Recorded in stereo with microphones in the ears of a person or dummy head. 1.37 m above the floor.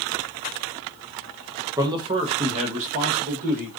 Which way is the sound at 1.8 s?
20° right (ahead or behind).